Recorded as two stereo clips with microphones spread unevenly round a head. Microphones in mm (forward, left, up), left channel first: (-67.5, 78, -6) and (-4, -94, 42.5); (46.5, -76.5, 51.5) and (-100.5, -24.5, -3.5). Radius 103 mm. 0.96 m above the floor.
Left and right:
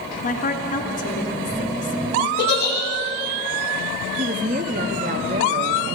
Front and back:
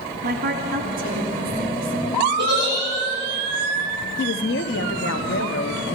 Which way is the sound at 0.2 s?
150° left.